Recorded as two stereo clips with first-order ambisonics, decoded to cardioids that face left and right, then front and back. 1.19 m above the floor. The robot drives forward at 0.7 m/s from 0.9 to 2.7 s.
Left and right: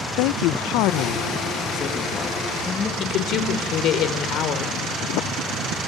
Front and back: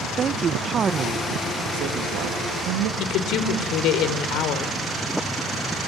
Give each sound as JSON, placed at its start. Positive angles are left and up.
{"t": 0.2, "sound": "a man speaking", "azimuth_deg": 115, "distance_m": 0.6}
{"t": 3.0, "sound": "a woman speaking", "azimuth_deg": 40, "distance_m": 3.5}